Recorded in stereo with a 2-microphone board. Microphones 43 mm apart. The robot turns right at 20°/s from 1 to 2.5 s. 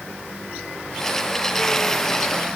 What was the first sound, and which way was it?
Only background noise.